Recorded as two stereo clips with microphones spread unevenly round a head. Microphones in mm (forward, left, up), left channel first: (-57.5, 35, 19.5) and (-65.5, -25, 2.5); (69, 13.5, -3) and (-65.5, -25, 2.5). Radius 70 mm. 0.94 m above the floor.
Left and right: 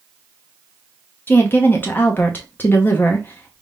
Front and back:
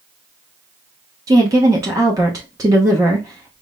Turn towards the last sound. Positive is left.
turn(degrees=140)